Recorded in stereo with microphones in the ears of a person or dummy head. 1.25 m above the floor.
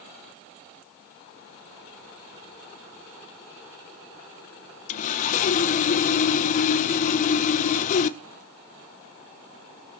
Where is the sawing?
50° left (ahead or behind), 0.8 m.